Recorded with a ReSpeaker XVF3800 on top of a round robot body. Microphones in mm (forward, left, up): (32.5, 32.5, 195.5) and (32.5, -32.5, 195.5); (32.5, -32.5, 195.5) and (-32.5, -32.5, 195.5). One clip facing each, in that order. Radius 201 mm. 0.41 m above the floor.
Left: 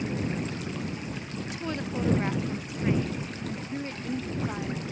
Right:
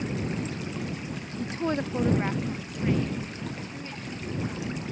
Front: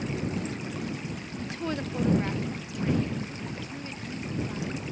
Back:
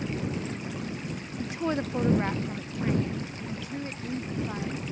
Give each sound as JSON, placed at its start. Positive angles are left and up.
{"t": 1.4, "sound": "a woman speaking", "azimuth_deg": -110}